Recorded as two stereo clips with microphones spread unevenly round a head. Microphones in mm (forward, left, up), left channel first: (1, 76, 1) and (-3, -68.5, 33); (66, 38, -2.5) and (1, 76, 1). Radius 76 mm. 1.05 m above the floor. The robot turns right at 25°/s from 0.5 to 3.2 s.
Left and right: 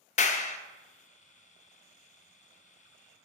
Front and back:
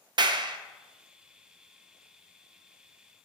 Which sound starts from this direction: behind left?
A clap, at 0.2 s.